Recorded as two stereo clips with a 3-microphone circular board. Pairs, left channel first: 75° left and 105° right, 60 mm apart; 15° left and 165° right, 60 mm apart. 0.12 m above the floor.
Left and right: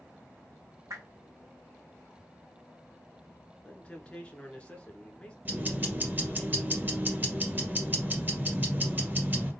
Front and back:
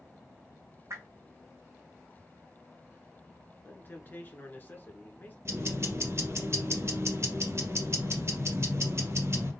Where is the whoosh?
130° right, 1.7 m.